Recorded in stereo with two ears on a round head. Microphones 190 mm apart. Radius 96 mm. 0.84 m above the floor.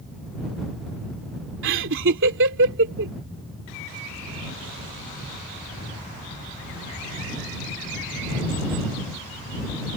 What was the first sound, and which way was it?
Laughter, 65° right (ahead or behind).